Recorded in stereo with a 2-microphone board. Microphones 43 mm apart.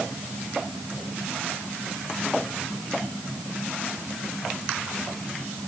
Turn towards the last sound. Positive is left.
No sound to turn to.